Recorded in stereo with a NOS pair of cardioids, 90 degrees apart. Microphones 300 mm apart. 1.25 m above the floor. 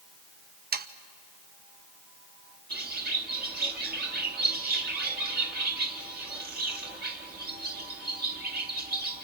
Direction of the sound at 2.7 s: 30° right.